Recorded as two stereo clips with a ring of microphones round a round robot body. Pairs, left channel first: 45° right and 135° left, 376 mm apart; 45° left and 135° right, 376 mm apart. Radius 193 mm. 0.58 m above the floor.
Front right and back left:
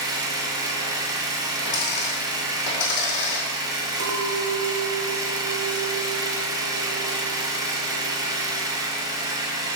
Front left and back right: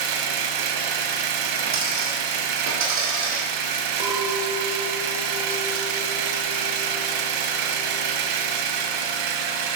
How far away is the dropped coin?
About 2.5 m.